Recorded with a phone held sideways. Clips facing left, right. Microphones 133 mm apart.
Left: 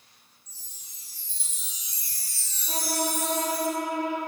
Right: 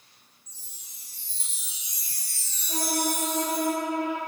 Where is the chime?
25° right (ahead or behind), 1.8 m.